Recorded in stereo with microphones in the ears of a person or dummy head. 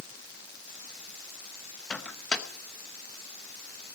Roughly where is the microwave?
Centre.